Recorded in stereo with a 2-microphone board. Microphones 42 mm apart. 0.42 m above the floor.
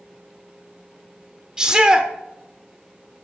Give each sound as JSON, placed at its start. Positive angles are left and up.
{"t": 1.6, "sound": "a shout", "side_deg": -20, "distance_m": 0.9}